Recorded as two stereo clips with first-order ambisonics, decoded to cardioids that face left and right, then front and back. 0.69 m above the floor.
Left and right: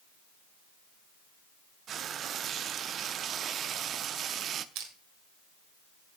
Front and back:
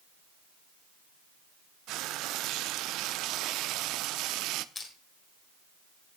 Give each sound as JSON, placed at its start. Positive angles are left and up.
{"t": 1.9, "sound": "frying", "azimuth_deg": -145, "distance_m": 0.5}
{"t": 4.8, "sound": "crushing", "azimuth_deg": -75, "distance_m": 2.5}